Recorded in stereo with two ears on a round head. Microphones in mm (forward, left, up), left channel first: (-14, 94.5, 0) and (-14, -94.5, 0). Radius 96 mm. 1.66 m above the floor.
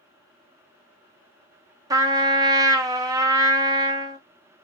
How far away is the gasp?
No gasp in this recording.